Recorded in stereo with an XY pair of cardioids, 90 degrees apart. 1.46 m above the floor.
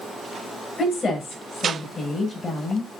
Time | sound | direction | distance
0.8 | a woman speaking | 35° left | 8 m